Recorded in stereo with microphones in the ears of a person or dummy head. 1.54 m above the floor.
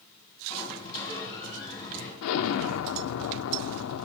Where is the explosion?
75° left (ahead or behind), 0.7 m.